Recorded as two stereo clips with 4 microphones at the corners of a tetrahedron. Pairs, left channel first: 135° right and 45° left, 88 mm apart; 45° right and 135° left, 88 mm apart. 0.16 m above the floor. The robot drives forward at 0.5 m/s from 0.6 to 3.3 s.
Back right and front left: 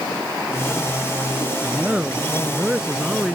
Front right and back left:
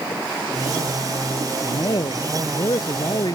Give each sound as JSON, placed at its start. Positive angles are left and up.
{"t": 1.6, "sound": "a man speaking", "azimuth_deg": -30}